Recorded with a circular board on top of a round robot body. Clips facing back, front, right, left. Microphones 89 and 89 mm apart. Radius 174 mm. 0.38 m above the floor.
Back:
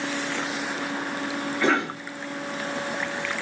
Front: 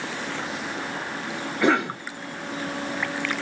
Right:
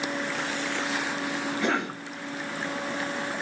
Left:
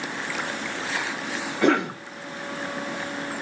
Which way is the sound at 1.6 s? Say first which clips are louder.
Front 3 dB, left 9 dB; 75° left.